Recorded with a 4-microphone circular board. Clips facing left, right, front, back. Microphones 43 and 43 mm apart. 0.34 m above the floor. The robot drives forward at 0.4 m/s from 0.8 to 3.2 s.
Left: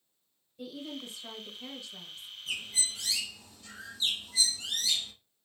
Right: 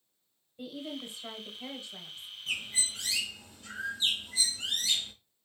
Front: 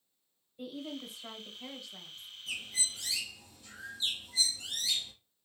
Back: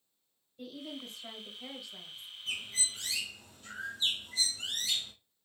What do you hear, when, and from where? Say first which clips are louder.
0.6 s a woman speaking: right 1 dB, front 2 dB; 60° right, 1.4 m; by 2.3 s 110° right, 1.4 m
2.5 s a bird: right 1 dB, back 1 dB; 140° right, 1.1 m; by 5.1 s 145° right, 1.3 m